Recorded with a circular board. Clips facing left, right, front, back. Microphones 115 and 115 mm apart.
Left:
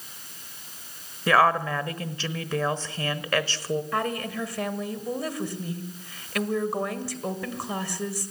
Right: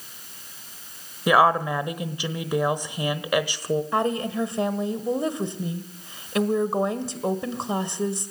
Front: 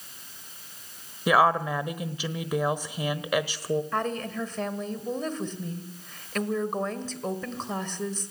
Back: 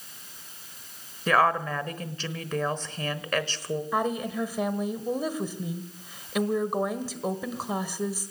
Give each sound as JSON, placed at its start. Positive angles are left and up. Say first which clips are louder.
{"t": 1.3, "sound": "a woman speaking", "louder": "right 2 dB, front 2 dB", "azimuth_deg": -55, "distance_m": 1.0}
{"t": 3.9, "sound": "a woman speaking", "louder": "right 4 dB, back 2 dB", "azimuth_deg": -115, "distance_m": 1.4}